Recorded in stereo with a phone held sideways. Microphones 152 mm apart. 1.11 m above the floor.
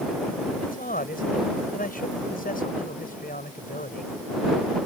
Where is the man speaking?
70° left (ahead or behind).